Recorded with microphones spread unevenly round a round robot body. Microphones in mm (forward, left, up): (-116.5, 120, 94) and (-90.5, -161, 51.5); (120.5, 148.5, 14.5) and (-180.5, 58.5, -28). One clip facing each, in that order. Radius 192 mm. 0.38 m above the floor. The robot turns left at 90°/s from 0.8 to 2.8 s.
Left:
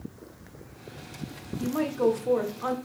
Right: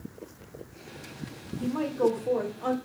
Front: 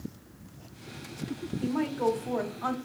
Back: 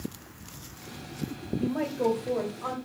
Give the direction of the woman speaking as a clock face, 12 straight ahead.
8 o'clock.